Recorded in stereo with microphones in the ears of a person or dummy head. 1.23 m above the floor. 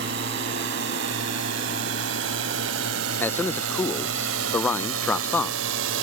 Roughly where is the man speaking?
Centre.